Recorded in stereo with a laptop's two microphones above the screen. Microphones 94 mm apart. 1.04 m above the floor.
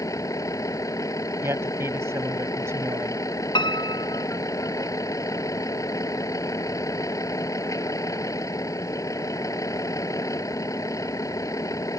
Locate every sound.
0.0 s a vehicle: 35° left (ahead or behind)
1.4 s a man speaking: 30° right (ahead or behind)
3.5 s a piano: 60° left (ahead or behind)